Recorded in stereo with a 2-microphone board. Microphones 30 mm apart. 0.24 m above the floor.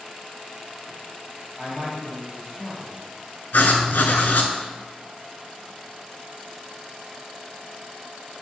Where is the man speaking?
25° left (ahead or behind), 1.7 m.